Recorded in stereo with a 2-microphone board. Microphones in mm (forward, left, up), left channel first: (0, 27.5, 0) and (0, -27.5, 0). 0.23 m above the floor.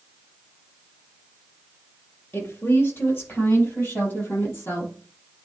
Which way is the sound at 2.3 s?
50° left (ahead or behind).